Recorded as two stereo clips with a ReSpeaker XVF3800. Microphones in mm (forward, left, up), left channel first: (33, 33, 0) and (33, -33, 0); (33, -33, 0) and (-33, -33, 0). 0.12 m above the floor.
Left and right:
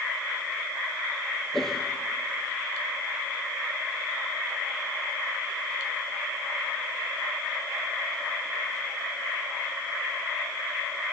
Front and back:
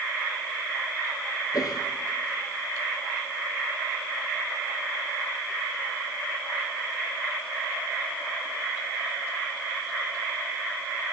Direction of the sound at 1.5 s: 5° left.